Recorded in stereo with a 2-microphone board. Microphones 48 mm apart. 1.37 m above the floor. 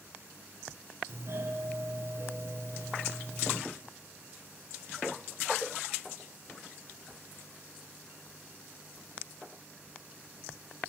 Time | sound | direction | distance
1.1 | a doorbell | 55° right (ahead or behind) | 0.6 m